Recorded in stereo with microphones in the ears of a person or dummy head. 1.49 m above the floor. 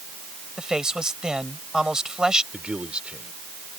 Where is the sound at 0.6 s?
5° left (ahead or behind).